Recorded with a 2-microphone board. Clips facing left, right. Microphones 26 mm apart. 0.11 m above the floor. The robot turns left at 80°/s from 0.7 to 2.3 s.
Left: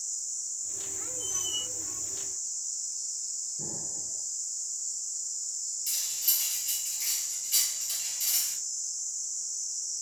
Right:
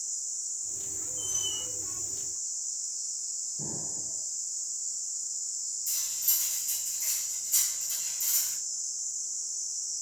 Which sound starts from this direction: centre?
An explosion, at 3.6 s.